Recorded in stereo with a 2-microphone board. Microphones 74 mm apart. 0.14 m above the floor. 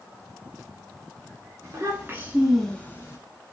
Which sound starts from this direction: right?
A child speaking, at 1.6 s.